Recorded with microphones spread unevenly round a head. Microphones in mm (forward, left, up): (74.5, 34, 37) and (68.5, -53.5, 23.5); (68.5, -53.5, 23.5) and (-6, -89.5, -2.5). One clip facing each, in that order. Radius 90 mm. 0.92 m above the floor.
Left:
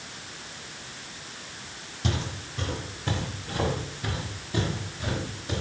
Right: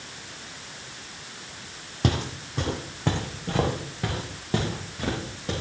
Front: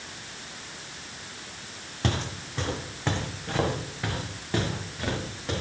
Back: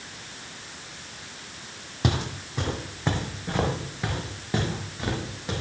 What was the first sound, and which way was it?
Footsteps, 70° right.